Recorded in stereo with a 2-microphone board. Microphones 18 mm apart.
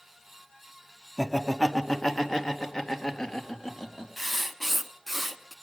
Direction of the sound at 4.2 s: Centre (ahead or behind).